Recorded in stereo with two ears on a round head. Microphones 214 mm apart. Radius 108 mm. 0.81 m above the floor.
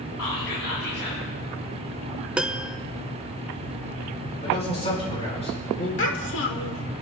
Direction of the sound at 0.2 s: 60° left (ahead or behind).